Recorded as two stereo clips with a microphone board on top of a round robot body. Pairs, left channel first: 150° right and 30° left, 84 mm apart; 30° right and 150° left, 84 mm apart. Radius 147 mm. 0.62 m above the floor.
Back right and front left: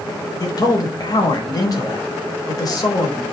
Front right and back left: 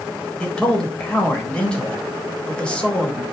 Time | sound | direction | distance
0.4 | a man speaking | 110° right | 4 m